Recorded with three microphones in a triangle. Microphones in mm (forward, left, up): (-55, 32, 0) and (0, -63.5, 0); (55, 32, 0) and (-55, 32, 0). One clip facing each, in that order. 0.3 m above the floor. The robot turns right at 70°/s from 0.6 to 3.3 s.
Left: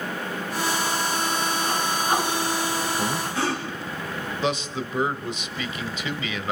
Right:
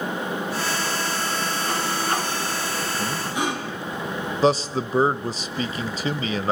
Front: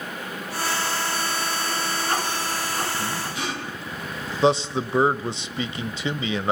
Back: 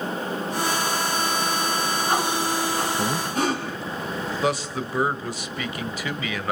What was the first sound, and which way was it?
Breathing, 155° right.